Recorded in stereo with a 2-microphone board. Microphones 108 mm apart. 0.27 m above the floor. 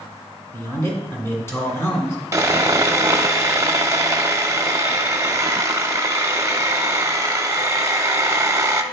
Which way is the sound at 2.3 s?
30° right (ahead or behind).